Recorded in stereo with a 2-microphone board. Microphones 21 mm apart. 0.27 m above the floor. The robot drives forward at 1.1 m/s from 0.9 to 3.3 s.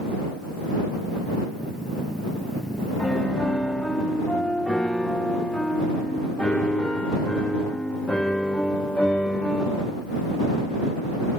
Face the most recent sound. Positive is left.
turn(degrees=85)